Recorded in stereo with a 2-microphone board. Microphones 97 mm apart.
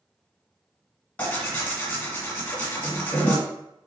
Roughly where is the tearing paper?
Centre.